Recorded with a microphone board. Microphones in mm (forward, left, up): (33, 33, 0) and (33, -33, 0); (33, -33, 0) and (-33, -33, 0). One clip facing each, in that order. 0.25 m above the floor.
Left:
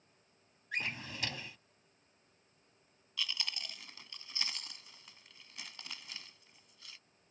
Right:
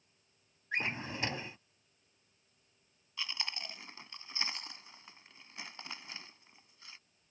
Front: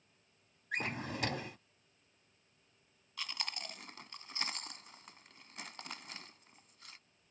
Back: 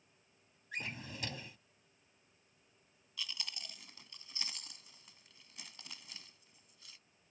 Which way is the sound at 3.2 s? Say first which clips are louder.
Even, front 4 dB; 30° right.